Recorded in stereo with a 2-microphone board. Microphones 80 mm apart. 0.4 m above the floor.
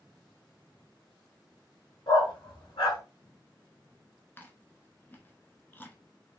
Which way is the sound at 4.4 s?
25° left (ahead or behind).